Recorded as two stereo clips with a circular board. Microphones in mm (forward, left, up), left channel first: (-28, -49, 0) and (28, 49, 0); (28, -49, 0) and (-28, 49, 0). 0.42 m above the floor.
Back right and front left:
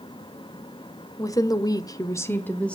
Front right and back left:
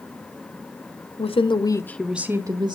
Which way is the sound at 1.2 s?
65° right.